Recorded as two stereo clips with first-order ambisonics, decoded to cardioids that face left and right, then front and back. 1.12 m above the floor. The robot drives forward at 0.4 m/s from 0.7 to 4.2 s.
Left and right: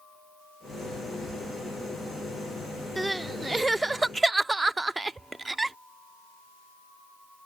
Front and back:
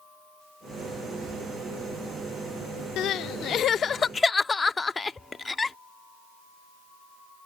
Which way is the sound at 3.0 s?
10° right.